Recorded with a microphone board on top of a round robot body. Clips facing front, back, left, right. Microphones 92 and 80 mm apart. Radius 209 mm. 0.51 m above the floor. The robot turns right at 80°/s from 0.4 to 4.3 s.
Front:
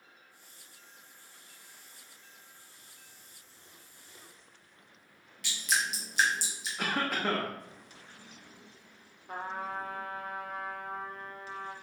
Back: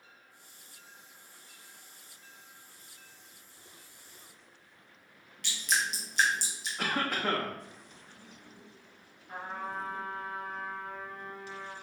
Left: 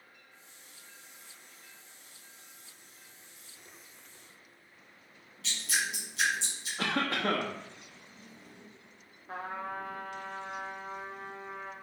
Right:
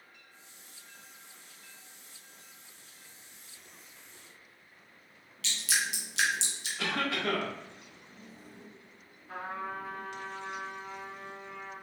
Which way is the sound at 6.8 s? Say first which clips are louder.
Even, left 1 dB; 85° left.